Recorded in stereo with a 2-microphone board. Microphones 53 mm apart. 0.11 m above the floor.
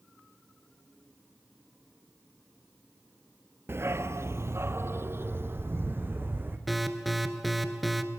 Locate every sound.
3.7 s a dog barking: 50° right (ahead or behind), 1.0 m; by 6.6 s 40° right (ahead or behind), 3.5 m
6.7 s an alarm: centre (ahead or behind), 1.9 m